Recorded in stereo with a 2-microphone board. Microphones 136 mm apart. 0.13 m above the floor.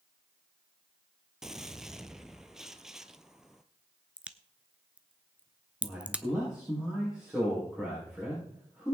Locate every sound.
1.4 s a gunshot: 5° right (ahead or behind), 0.8 m
4.2 s a crack: 10° right (ahead or behind), 0.7 m
5.8 s a man speaking: 5° right (ahead or behind), 7 m